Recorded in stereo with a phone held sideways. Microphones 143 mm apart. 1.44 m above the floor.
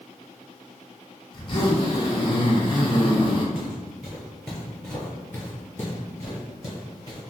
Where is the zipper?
35° left (ahead or behind), 0.8 m.